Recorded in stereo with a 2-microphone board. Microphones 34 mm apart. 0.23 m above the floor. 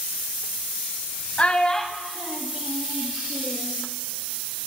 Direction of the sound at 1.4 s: 40° left (ahead or behind).